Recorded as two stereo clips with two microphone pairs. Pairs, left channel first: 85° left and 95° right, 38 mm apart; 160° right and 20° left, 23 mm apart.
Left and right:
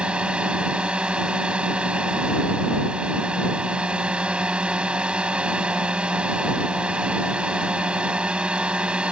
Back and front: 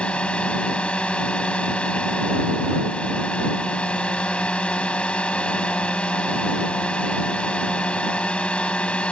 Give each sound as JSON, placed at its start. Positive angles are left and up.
{"t": 0.0, "sound": "a drone", "azimuth_deg": -150}